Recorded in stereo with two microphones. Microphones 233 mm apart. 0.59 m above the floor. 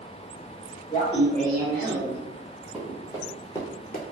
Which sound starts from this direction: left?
Laughter, at 0.9 s.